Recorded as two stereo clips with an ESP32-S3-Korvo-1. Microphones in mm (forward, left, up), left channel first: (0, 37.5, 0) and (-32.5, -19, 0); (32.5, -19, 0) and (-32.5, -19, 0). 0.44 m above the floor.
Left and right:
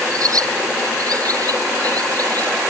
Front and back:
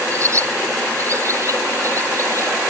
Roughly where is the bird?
Behind right.